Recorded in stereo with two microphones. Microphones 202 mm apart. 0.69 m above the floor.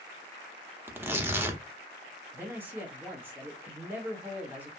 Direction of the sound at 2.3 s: 10° right (ahead or behind).